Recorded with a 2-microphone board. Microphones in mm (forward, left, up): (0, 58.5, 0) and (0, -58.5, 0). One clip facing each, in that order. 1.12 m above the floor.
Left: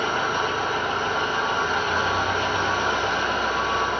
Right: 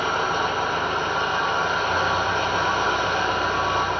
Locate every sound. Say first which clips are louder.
0.0 s an engine running: right 1 dB; 65° right (ahead or behind), 3.5 m